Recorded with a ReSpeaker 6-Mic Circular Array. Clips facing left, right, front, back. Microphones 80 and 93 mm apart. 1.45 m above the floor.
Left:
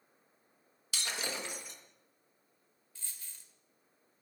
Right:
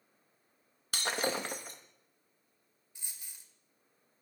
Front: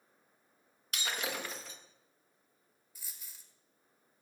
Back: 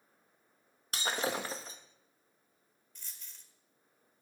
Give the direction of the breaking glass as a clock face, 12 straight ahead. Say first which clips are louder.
Right 6 dB, back 4 dB; 4 o'clock.